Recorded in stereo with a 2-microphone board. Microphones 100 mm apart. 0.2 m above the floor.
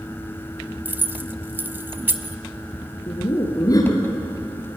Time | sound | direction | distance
0.8 | keys jangling | 20° right (ahead or behind) | 0.9 m
3.1 | laughter | 35° left (ahead or behind) | 2.5 m